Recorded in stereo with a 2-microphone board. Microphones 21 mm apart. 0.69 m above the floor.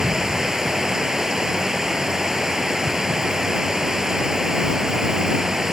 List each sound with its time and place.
0.0 s running water: 35° right (ahead or behind)